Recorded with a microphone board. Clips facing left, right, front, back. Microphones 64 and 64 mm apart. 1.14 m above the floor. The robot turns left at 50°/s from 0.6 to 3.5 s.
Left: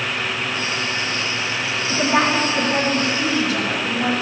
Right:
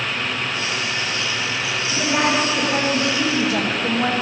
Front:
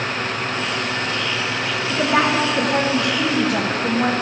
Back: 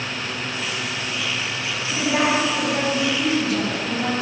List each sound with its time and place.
1.9 s a woman speaking: 40° left, 1.1 m; by 4.1 s 40° right, 1.1 m